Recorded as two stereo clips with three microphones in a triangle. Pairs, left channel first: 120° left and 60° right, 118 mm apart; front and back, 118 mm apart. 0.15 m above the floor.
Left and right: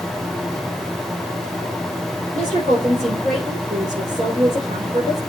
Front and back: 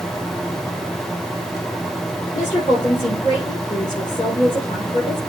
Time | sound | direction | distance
2.3 | a woman speaking | 50° right | 4 m